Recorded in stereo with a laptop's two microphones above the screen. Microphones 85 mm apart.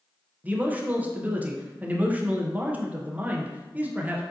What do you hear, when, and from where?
0.4 s a man speaking: 20° right (ahead or behind), 0.5 m